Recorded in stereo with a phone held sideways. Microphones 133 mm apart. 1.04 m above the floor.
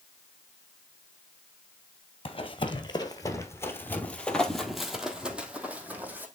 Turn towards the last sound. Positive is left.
turn(degrees=-15)  # may be behind; listen again after turning